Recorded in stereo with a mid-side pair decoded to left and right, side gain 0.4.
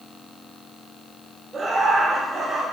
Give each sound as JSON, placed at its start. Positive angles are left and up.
{"t": 1.5, "sound": "laughter", "azimuth_deg": -40, "distance_m": 2.0}